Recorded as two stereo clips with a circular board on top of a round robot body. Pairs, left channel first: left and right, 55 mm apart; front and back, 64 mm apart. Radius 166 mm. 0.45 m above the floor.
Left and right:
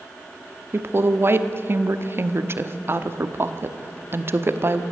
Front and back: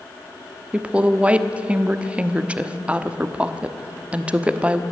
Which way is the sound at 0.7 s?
115° right.